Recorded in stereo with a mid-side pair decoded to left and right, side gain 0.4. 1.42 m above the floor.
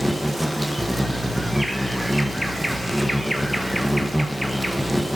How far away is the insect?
About 1.6 m.